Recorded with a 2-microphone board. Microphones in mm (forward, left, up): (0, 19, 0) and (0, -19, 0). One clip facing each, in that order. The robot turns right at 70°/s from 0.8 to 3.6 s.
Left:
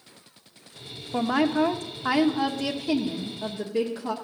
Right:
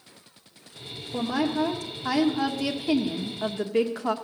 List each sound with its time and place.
1.1 s a woman speaking: 80° left, 1.1 m; by 4.1 s 105° right, 1.1 m